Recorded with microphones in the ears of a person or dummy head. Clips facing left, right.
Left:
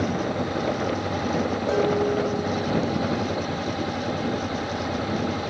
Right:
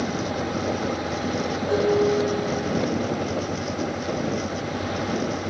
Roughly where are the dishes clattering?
Left.